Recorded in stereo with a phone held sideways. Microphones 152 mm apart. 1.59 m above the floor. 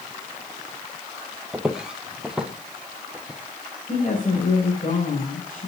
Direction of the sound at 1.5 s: 5° right (ahead or behind).